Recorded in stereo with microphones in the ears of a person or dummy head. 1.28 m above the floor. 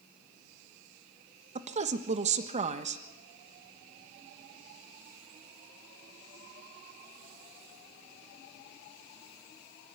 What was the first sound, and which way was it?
A woman speaking, 35° right (ahead or behind).